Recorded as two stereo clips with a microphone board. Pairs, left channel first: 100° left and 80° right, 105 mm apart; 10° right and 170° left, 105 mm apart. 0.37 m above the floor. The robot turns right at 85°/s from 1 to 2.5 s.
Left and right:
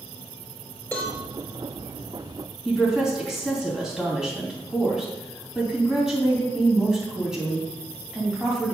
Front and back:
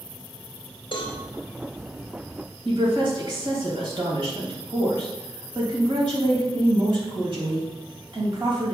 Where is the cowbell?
30° left, 3 m; by 1.2 s 40° left, 3 m.